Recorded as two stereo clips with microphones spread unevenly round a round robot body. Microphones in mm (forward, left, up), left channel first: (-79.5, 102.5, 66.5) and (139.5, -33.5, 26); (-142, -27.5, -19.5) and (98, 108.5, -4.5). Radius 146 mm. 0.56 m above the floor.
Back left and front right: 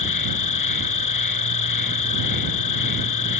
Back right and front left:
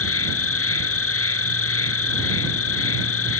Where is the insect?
170° left.